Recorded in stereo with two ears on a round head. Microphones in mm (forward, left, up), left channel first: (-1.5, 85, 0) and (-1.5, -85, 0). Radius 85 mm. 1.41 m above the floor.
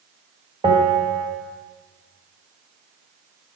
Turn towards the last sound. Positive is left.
turn(degrees=-25)  # may be behind; listen again after turning